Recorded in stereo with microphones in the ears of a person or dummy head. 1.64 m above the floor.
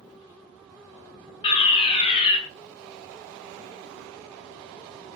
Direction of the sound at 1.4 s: 30° left (ahead or behind).